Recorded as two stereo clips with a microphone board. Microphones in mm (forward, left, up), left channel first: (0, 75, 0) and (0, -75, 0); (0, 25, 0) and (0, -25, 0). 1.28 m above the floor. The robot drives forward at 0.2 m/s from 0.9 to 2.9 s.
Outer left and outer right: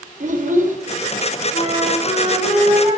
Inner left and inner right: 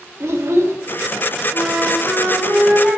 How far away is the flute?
About 3.5 m.